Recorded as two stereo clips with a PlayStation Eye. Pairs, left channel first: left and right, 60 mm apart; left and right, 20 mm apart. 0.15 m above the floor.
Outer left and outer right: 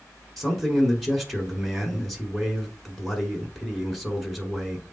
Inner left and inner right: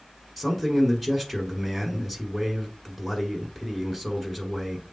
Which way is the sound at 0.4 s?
5° left (ahead or behind).